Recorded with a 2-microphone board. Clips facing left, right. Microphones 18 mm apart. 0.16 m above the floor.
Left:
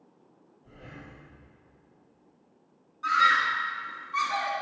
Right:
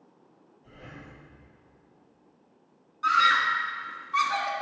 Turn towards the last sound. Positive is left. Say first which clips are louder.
# right 1 dB
turn(degrees=-40)  # may be behind; listen again after turning